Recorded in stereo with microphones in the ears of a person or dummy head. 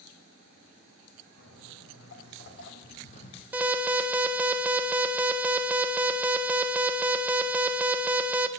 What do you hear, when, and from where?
1.4 s footsteps: 75° left (ahead or behind), 4 m; by 3.4 s 35° left (ahead or behind), 2.5 m
3.5 s an alarm: 5° right (ahead or behind), 0.9 m